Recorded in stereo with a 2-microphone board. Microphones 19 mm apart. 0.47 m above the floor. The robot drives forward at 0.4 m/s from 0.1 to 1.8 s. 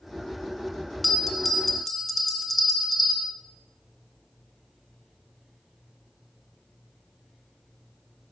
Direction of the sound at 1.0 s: 5° left (ahead or behind).